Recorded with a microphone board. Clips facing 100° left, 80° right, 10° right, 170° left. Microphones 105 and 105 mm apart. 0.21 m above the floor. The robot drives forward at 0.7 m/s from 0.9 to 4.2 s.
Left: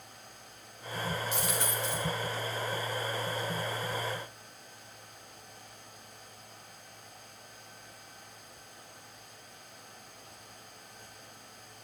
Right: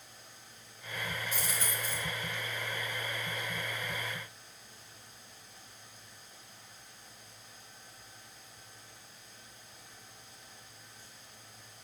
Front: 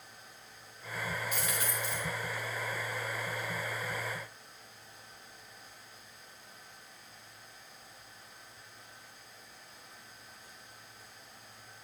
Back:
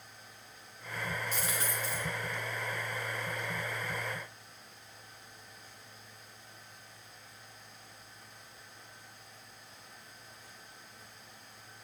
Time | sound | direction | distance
1.3 | a dropped coin | 110° left | 3.5 m